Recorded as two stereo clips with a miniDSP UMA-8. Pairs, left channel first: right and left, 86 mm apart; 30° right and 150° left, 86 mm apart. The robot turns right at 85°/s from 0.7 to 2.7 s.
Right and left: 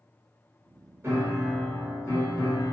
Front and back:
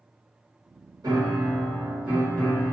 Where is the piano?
140° left, 1.3 m; by 2.7 s 80° right, 1.3 m.